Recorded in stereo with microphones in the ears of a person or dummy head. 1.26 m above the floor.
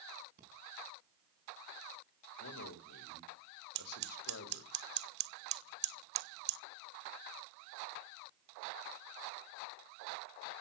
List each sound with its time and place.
0.4 s breathing: 40° right (ahead or behind), 4 m
2.4 s a man speaking: 85° left, 3 m
3.8 s scissors: 55° right (ahead or behind), 0.9 m